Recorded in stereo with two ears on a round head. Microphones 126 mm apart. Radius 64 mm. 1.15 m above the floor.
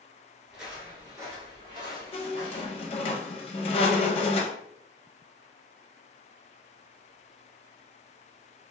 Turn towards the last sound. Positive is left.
turn(degrees=40)  # may be behind; listen again after turning